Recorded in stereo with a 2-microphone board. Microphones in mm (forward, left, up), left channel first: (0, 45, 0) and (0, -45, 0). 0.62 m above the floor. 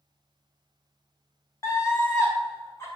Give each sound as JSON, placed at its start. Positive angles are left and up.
{"t": 1.6, "sound": "a scream", "side_deg": 30, "distance_m": 2.5}